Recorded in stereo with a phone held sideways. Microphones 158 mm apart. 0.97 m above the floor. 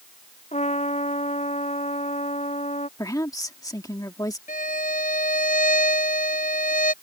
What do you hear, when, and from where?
0.5 s a trumpet: 45° left (ahead or behind)
3.0 s a woman speaking: 20° left (ahead or behind)
4.5 s a violin: 60° left (ahead or behind)